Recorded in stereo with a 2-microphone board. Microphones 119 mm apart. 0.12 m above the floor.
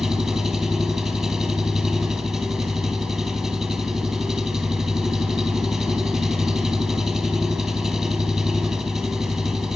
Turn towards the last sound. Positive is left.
turn(degrees=0)  # may be behind; listen again after turning